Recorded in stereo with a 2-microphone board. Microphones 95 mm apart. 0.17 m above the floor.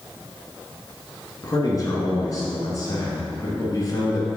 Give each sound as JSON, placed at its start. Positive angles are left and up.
{"t": 1.4, "sound": "a man speaking", "side_deg": 35, "distance_m": 1.8}